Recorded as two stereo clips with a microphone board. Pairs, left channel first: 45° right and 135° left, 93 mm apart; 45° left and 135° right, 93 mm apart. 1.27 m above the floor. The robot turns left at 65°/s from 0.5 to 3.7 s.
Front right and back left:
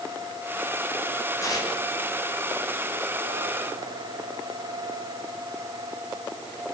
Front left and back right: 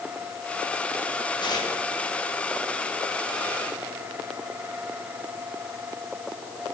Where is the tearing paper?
10° left, 7 m; by 1.7 s 10° right, 7 m.